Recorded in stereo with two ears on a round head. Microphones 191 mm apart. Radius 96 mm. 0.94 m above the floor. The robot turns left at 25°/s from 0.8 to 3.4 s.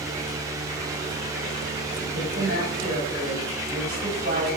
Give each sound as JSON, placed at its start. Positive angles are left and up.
{"t": 2.1, "sound": "a woman speaking", "azimuth_deg": -80, "distance_m": 5.0}